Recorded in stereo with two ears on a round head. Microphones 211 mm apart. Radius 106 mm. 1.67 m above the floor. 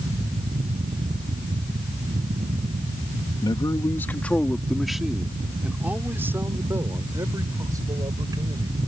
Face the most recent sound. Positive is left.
turn(degrees=-15)  # may be behind; listen again after turning